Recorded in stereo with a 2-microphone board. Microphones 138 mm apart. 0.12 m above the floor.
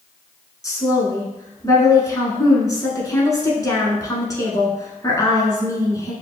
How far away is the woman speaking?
About 1.1 m.